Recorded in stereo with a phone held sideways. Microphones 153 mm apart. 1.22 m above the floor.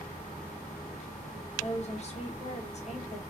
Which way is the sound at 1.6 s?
45° left (ahead or behind).